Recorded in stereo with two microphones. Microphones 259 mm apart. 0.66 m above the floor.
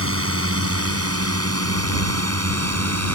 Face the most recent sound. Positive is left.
turn(degrees=-75)  # may be behind; listen again after turning